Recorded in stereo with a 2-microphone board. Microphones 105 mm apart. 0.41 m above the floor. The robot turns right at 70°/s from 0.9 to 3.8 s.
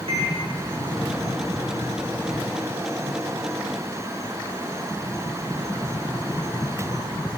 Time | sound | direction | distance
0.1 | a microwave | 65° right (ahead or behind) | 4.5 m